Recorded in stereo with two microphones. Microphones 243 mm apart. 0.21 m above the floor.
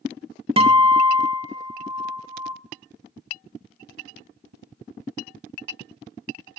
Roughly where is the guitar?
Right.